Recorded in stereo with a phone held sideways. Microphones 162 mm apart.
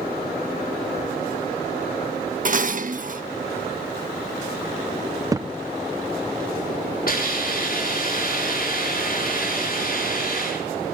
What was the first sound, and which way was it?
Dishes clattering, 55° right (ahead or behind).